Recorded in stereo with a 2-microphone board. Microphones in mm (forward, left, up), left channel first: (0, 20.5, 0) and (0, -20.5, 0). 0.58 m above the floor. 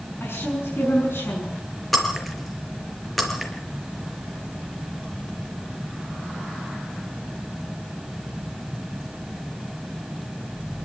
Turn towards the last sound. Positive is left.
turn(degrees=0)  # may be behind; listen again after turning